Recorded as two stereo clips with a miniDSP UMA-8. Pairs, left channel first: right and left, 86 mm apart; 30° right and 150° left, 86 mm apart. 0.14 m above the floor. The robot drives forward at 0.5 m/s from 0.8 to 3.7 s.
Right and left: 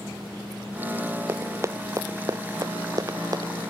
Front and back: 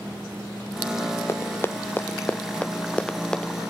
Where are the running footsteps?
30° left; by 3.5 s 50° left.